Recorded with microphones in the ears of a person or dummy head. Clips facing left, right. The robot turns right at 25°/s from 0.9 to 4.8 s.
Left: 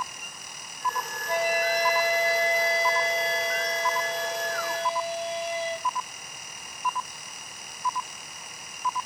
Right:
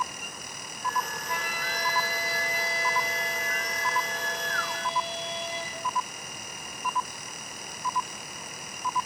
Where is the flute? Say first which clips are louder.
Left 10 dB; 45° left, 6 m; by 5.9 s 130° left, 6 m.